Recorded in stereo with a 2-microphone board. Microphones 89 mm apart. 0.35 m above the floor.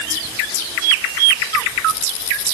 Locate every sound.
Only background noise.